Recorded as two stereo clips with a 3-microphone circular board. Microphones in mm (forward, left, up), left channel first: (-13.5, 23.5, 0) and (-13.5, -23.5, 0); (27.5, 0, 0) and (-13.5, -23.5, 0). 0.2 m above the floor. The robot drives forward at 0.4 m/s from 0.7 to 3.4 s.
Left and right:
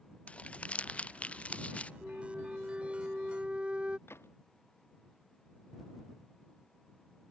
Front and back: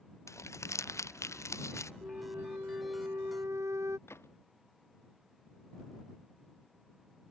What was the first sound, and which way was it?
Crumpling, 25° left.